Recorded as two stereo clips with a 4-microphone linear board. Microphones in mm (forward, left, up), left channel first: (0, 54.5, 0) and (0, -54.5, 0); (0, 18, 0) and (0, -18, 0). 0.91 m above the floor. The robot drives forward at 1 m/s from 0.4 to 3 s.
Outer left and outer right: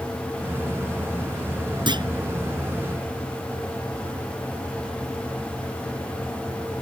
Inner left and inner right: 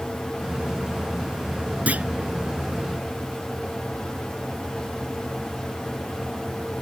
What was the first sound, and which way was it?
A clunk, 45° right (ahead or behind).